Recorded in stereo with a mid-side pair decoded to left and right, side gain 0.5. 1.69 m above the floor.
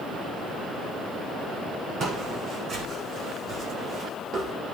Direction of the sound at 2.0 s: 65° right.